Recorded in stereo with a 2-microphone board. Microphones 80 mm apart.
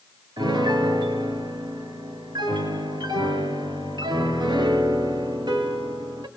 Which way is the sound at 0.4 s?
65° right (ahead or behind).